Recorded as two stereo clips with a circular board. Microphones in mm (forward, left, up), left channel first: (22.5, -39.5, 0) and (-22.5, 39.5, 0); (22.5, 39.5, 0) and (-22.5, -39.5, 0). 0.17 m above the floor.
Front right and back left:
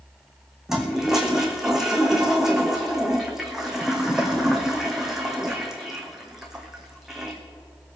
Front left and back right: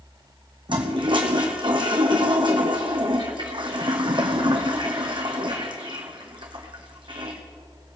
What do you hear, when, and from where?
0.7 s a toilet flushing: 155° right, 1.9 m